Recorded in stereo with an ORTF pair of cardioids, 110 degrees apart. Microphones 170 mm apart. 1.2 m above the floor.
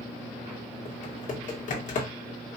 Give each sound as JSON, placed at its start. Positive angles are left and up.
{"t": 0.8, "sound": "typing on a keyboard", "azimuth_deg": 50, "distance_m": 1.7}